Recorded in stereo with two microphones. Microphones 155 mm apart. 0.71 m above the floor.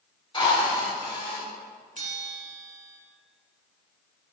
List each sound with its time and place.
0.3 s a drill: 35° left (ahead or behind), 4 m
2.0 s a bell: 55° right (ahead or behind), 2 m